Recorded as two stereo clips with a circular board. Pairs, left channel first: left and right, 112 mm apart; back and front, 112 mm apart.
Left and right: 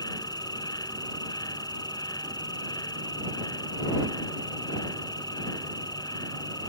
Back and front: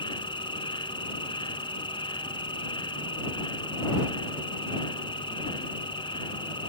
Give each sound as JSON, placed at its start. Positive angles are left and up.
{"t": 0.0, "sound": "an insect", "azimuth_deg": 140}